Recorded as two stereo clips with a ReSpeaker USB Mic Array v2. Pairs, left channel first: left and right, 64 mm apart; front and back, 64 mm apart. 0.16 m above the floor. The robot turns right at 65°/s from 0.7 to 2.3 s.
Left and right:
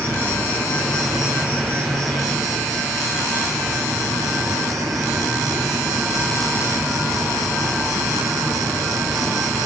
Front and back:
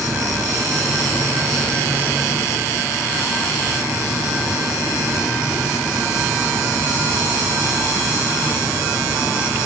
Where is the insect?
155° left, 3 m; by 9.7 s 100° right, 3 m.